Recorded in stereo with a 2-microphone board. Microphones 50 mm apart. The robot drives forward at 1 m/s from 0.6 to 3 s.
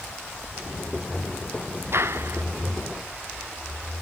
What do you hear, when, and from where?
1.9 s a clap: 60° right (ahead or behind)